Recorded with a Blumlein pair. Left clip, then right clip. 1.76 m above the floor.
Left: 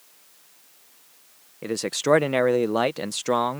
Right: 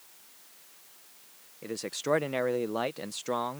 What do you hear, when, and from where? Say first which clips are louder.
1.6 s a man speaking: left 9 dB; 65° left